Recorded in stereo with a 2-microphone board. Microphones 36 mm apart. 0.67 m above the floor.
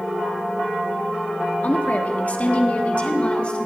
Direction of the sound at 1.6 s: 45° left (ahead or behind).